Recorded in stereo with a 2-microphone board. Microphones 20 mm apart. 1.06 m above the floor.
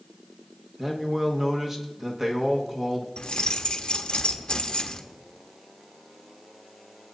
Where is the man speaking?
20° right (ahead or behind), 1.3 m.